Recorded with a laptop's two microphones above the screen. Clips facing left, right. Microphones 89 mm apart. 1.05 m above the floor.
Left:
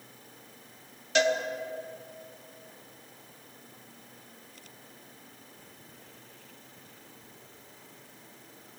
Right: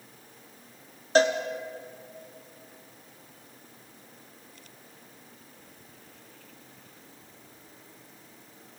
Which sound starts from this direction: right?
A cowbell, at 1.1 s.